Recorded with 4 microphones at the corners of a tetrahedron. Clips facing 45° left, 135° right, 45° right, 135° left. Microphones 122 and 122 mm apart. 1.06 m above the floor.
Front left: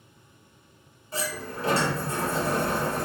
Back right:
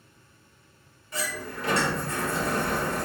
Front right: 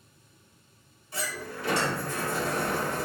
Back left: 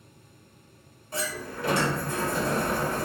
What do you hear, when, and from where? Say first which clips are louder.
1.1 s a sliding door: front left 1 dB, back left 3 dB; 100° left, 1.3 m